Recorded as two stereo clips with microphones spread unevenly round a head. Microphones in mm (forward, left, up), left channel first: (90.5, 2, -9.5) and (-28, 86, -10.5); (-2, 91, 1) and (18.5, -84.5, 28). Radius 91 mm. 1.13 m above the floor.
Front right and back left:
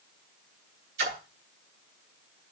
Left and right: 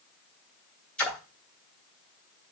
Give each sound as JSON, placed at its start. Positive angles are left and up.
{"t": 1.0, "sound": "a splash", "azimuth_deg": -175, "distance_m": 3.0}